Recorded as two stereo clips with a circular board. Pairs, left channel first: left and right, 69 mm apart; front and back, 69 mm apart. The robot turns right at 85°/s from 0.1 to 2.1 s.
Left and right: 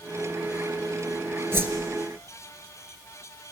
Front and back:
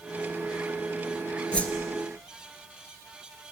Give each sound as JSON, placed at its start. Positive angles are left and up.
{"t": 1.5, "sound": "a whoosh", "azimuth_deg": -65, "distance_m": 1.5}